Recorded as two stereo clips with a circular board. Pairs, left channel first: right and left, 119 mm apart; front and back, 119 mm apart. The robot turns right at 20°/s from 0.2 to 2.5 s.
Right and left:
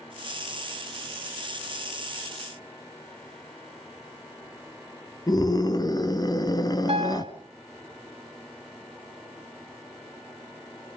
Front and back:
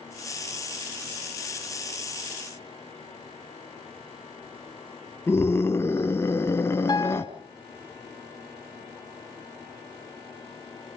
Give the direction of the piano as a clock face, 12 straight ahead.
10 o'clock.